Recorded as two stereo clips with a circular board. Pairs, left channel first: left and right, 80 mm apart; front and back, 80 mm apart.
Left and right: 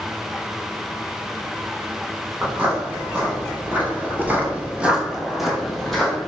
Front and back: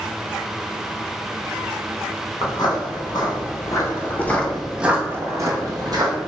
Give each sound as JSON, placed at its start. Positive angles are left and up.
{"t": 2.4, "sound": "footsteps", "azimuth_deg": -25, "distance_m": 1.3}